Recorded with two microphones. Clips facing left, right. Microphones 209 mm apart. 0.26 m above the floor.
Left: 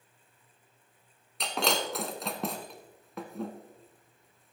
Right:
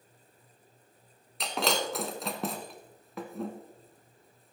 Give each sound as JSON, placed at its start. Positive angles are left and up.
{"t": 1.4, "sound": "breaking glass", "side_deg": 0, "distance_m": 1.2}